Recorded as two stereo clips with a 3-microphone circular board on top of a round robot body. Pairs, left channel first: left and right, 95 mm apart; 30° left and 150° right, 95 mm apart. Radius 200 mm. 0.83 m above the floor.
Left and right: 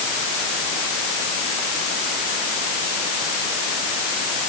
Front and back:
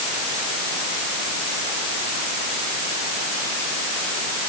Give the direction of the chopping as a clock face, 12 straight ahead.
I don't hear chopping.